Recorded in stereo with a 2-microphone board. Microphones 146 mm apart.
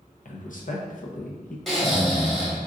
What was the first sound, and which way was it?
A man speaking, 65° left (ahead or behind).